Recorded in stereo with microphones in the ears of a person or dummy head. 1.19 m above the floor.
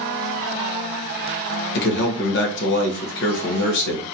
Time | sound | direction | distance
1.8 | a man speaking | 65° left (ahead or behind) | 1.0 m